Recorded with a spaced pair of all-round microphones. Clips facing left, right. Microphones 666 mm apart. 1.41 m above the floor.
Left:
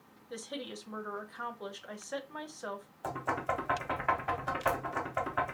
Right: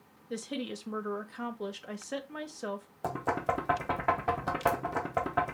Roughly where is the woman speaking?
Right.